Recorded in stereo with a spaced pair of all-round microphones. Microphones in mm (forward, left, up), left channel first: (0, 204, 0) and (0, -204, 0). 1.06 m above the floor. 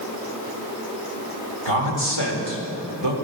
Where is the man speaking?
80° right, 3.5 m.